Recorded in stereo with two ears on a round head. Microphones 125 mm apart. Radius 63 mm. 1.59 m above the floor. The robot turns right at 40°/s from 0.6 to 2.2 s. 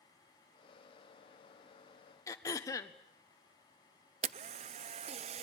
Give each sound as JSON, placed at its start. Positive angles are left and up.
{"t": 2.3, "sound": "throat clearing", "side_deg": 20, "distance_m": 1.2}
{"t": 4.2, "sound": "a camera shutter", "side_deg": -45, "distance_m": 0.5}